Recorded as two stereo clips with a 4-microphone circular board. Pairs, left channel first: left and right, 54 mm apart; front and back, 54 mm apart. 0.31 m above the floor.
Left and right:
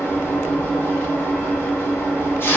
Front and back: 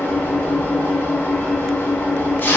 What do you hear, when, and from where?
0.0 s an engine running: 50° left, 0.9 m